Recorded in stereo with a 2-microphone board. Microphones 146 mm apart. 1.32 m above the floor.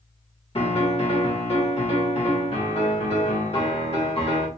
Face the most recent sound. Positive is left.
turn(degrees=45)  # may be behind; listen again after turning